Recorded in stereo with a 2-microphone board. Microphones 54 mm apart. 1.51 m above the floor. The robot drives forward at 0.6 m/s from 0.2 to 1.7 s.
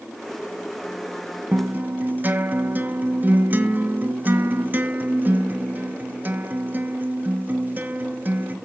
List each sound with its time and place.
1.5 s a guitar: 35° right (ahead or behind), 1.0 m